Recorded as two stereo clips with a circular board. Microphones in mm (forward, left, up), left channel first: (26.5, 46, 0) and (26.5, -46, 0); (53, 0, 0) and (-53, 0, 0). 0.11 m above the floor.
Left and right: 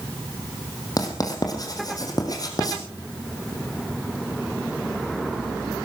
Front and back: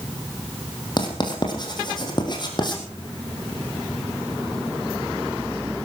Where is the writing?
45° left, 4 m.